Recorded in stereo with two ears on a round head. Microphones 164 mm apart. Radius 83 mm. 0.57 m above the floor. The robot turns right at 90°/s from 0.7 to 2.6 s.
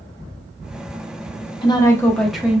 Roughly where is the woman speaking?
Left.